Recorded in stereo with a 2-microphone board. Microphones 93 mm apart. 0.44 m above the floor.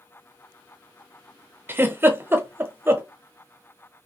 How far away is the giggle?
About 0.7 m.